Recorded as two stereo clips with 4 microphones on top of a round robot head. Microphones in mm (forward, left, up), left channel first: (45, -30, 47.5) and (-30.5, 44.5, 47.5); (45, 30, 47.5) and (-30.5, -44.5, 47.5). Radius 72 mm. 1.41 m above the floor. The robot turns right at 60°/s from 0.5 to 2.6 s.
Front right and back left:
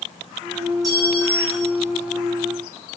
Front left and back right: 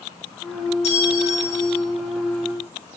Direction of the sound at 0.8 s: 80° left.